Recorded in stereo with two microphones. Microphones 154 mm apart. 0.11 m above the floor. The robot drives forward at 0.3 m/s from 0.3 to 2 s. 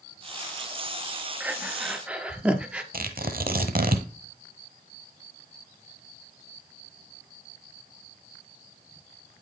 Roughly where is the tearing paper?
Right.